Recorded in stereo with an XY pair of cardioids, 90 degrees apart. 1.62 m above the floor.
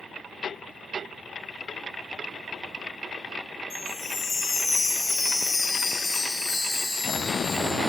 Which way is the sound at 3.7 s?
60° left.